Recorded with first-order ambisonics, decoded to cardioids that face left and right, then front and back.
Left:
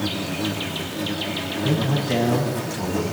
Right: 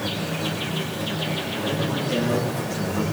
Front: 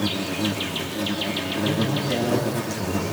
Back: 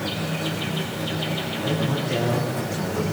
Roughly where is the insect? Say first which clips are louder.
Left 1 dB, front 2 dB; ahead left.